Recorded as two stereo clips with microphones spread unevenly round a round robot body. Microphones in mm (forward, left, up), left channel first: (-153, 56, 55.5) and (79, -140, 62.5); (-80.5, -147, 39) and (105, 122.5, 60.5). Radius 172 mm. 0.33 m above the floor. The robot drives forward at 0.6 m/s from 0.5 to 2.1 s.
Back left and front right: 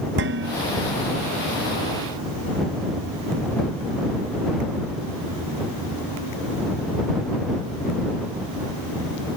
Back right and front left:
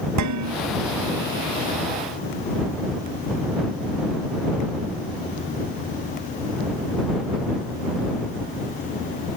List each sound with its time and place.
0.2 s dishes clattering: 15° left